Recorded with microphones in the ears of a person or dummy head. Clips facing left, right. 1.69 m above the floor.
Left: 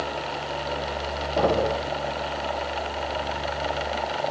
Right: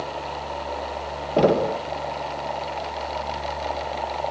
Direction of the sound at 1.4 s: 40° right (ahead or behind).